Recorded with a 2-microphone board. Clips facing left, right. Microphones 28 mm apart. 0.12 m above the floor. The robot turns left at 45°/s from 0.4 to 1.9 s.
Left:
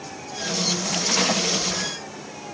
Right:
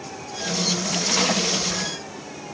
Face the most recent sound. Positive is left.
No sound to turn to.